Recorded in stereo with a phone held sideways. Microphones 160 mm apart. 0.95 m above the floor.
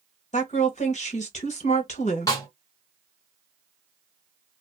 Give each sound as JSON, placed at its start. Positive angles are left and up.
{"t": 0.3, "sound": "a woman speaking", "side_deg": 50, "distance_m": 1.2}
{"t": 2.3, "sound": "a snare drum", "side_deg": 25, "distance_m": 1.2}